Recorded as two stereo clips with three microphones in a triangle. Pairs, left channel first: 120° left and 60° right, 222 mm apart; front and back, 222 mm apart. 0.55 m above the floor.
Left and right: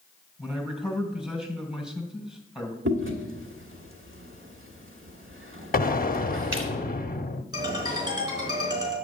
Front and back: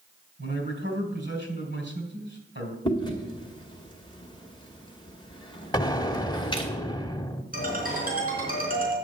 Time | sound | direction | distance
0.4 | a man speaking | 145° right | 3.5 m
2.9 | chewing | 65° right | 2 m
5.7 | an explosion | 70° left | 0.6 m
7.5 | a ringtone | 130° right | 4.5 m